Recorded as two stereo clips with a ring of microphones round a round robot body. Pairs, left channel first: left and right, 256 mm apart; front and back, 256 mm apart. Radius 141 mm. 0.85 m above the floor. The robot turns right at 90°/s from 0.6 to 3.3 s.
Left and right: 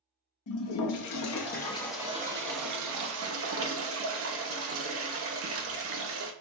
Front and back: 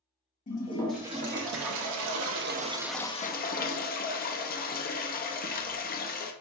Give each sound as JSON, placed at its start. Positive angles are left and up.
{"t": 0.5, "sound": "a toilet flushing", "azimuth_deg": 60, "distance_m": 0.7}